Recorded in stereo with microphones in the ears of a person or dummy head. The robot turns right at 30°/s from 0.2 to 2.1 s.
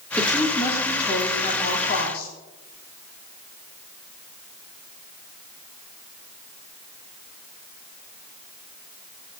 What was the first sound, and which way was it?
A woman speaking, straight ahead.